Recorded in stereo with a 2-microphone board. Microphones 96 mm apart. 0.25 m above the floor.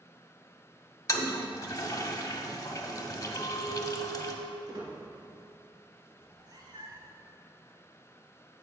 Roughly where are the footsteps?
No footsteps in this recording.